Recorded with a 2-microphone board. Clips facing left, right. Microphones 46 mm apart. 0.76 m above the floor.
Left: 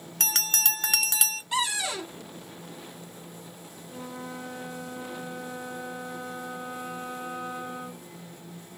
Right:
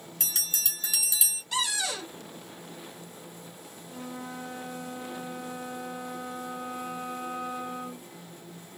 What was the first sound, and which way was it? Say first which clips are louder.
A bell: left 8 dB; 60° left (ahead or behind).